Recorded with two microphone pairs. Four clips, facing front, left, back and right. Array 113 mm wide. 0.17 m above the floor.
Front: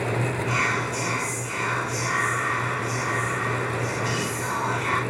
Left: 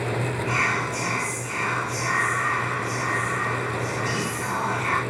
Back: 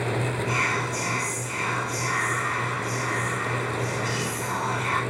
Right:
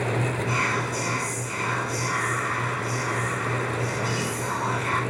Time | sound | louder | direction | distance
0.5 | whispering | left 1 dB, front 1 dB | 50° left | 1.8 m